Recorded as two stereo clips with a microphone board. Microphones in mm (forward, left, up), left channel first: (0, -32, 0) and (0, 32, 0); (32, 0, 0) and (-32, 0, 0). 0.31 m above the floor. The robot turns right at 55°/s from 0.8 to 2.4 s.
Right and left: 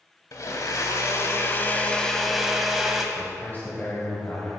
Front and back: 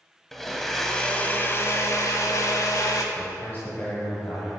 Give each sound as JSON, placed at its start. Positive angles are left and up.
{"t": 0.3, "sound": "a blender", "azimuth_deg": -85, "distance_m": 0.8}
{"t": 3.1, "sound": "a man speaking", "azimuth_deg": -45, "distance_m": 1.4}